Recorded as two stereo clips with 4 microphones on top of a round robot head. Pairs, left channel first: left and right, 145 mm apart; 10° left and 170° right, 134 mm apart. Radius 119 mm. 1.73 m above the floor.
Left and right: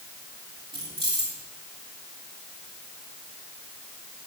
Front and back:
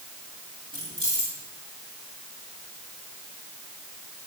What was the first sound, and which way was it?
Keys jangling, 130° right.